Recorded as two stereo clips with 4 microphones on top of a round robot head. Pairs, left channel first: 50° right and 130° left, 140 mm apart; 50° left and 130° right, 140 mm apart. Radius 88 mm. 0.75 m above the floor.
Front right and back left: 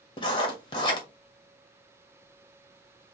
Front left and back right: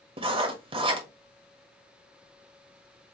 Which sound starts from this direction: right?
Writing, at 0.2 s.